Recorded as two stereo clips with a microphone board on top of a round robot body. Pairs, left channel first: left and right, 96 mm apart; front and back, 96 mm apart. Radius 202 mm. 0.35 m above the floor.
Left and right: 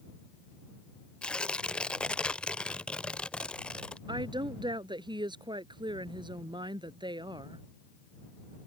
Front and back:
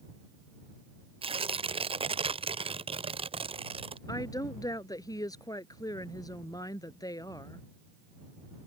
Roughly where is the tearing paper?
Behind.